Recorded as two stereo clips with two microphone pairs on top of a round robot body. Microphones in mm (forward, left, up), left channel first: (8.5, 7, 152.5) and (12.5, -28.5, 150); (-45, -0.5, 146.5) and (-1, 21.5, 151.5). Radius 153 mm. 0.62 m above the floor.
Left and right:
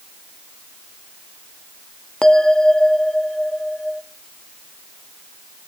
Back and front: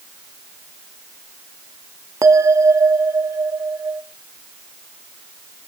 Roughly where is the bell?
Ahead left.